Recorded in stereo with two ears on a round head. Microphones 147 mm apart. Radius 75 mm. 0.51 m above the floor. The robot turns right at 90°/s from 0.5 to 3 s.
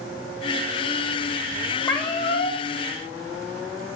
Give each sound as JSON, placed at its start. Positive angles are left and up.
{"t": 1.8, "sound": "a cat meowing", "azimuth_deg": 10, "distance_m": 0.9}